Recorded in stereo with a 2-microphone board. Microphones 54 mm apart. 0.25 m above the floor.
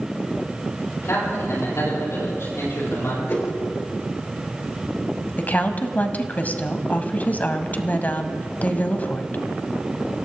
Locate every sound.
1.0 s a man speaking: 60° left (ahead or behind), 8.5 m; by 3.2 s 55° left (ahead or behind), 9 m
3.3 s a whoosh: 40° left (ahead or behind), 3.5 m
5.4 s a woman speaking: 35° left (ahead or behind), 1.2 m